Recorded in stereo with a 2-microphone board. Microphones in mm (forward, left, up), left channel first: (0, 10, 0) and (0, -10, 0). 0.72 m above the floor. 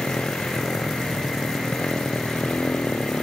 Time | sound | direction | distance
0.0 | a motorcycle | 90° left | ?